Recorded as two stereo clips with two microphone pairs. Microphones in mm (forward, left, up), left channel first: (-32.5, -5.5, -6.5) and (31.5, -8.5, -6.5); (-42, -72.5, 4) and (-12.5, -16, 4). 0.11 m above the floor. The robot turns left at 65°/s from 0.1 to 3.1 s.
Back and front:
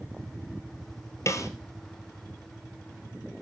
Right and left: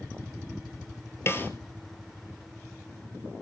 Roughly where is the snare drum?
Behind right.